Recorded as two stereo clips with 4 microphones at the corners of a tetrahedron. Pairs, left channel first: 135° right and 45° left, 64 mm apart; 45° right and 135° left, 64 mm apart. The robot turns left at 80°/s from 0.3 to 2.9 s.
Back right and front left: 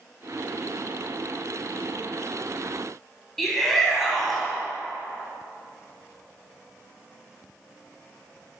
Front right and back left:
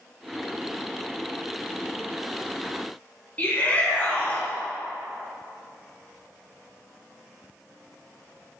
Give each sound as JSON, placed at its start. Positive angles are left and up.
{"t": 3.4, "sound": "a shout", "azimuth_deg": -50, "distance_m": 1.5}